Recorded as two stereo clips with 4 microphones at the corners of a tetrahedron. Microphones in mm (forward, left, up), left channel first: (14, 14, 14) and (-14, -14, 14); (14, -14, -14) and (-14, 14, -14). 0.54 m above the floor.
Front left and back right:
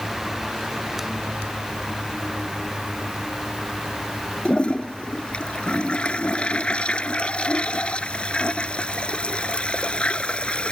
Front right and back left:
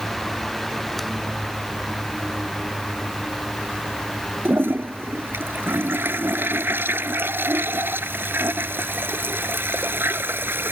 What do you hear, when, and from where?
4.5 s a toilet flushing: 110° left